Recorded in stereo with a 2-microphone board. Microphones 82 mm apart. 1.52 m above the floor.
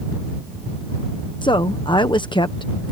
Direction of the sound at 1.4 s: 75° left (ahead or behind).